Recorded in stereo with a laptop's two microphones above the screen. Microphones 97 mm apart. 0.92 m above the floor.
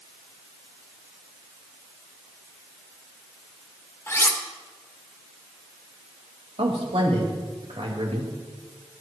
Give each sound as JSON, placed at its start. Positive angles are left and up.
{"t": 4.1, "sound": "cutlery clinking", "side_deg": 25, "distance_m": 1.6}
{"t": 6.6, "sound": "a man speaking", "side_deg": -75, "distance_m": 4.5}